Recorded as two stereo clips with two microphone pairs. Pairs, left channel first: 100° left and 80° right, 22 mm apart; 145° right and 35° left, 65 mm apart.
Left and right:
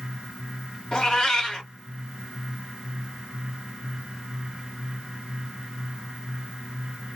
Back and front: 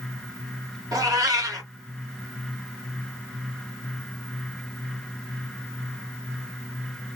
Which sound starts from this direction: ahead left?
A cat meowing, at 0.9 s.